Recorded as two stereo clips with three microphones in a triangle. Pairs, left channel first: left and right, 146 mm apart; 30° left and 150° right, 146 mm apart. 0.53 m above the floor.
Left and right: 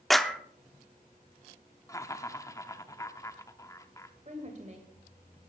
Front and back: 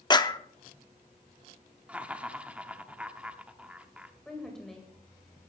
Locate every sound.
0.1 s a clap: straight ahead, 0.7 m
1.9 s laughter: 140° left, 0.8 m
4.2 s a woman speaking: 55° right, 3 m